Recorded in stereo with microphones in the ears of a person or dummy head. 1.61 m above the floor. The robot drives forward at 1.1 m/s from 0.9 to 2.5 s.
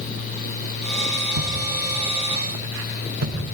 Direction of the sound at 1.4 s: 65° right (ahead or behind).